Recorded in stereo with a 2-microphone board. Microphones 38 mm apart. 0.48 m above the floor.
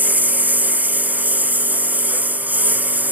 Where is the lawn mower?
45° right (ahead or behind).